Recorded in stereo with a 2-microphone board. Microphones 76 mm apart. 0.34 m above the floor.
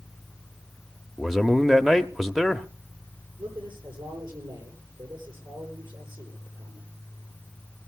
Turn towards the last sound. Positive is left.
turn(degrees=-80)